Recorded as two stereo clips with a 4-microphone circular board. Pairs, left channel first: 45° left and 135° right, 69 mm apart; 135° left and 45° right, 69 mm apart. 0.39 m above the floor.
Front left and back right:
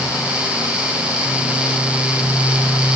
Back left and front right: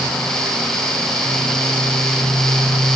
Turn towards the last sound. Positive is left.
No sound to turn to.